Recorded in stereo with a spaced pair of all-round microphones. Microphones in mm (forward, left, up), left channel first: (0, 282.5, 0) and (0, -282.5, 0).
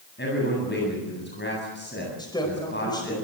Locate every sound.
0.2 s a man speaking: 20° left (ahead or behind), 8.5 m
2.2 s a woman speaking: 10° left (ahead or behind), 4.5 m